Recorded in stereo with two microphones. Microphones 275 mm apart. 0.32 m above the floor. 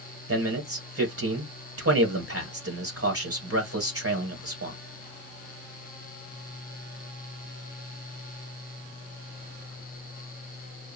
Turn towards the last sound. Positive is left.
turn(degrees=-55)  # may be behind; listen again after turning